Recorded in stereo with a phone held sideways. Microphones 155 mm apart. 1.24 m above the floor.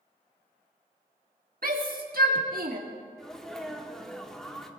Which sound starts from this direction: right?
A shout, at 1.6 s.